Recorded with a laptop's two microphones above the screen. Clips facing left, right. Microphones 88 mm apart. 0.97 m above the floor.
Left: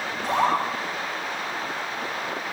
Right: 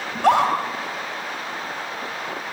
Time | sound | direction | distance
0.1 | a scream | 80° right | 4 m